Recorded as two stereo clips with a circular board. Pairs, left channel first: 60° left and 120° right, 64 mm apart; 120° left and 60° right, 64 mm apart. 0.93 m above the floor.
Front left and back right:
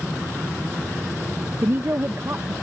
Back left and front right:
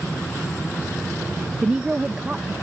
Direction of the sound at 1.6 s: 125° right.